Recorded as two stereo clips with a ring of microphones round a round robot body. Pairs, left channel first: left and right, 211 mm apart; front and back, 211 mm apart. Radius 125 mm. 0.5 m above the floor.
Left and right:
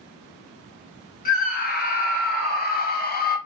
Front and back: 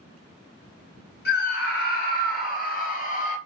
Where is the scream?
45° left, 2 m; by 3.4 s 55° left, 1.2 m.